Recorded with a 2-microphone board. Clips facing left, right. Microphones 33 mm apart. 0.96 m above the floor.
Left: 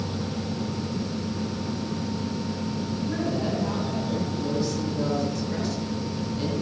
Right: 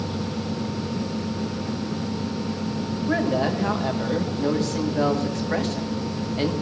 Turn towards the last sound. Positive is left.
turn(degrees=-70)  # may be behind; listen again after turning